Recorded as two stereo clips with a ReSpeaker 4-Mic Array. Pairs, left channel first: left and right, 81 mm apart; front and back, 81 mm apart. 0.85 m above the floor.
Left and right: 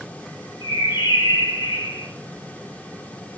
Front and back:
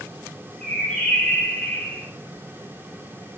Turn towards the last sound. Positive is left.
turn(degrees=80)